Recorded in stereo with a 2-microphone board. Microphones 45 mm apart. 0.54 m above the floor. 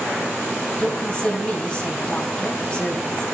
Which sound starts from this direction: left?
A woman speaking, at 0.8 s.